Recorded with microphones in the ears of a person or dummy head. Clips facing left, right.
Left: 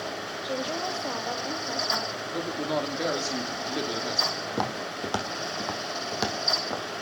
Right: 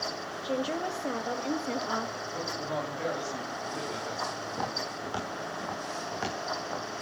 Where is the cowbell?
I don't hear a cowbell.